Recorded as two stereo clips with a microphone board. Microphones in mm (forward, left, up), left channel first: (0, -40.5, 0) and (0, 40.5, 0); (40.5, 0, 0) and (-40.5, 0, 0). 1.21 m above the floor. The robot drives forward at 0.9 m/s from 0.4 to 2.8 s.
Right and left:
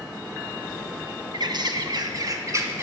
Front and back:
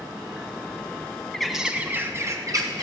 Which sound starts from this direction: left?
A bird, at 1.3 s.